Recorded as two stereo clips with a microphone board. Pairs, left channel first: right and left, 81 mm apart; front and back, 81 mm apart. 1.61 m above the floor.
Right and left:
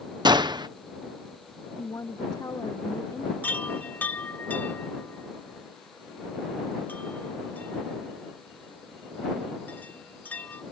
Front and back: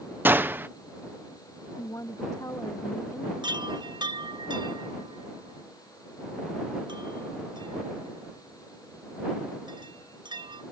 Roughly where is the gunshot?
Behind left.